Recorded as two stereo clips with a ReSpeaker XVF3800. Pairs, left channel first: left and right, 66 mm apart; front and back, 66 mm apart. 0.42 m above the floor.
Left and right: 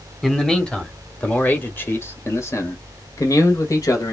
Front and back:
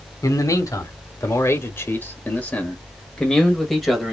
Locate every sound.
0.2 s a man speaking: 10° left, 1.7 m; by 4.1 s 95° left, 1.9 m